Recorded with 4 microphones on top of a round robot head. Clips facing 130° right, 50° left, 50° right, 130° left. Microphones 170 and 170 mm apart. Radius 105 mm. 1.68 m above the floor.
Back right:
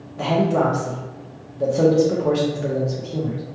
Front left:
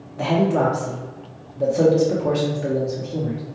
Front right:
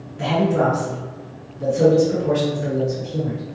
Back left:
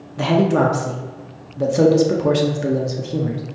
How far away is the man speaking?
About 0.6 m.